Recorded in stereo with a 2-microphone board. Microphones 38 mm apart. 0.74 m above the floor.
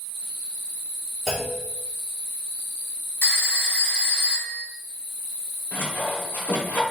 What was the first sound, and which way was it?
A clunk, centre (ahead or behind).